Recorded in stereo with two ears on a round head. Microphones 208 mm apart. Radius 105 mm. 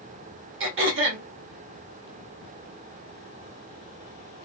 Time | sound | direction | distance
0.6 | throat clearing | 60° right (ahead or behind) | 1.6 m